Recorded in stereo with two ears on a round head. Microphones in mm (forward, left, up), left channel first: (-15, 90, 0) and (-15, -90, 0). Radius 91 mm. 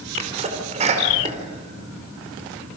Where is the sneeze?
35° right (ahead or behind), 4 m.